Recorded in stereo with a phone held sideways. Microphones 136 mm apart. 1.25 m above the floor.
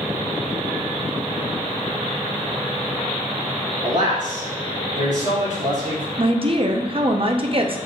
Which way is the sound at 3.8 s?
65° right (ahead or behind).